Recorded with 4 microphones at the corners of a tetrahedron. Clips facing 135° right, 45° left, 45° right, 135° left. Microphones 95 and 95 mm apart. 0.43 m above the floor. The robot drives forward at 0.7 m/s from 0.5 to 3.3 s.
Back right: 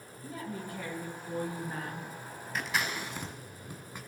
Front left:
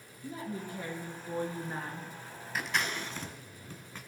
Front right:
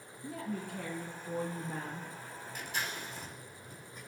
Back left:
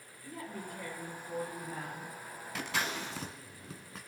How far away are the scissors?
About 1.0 m.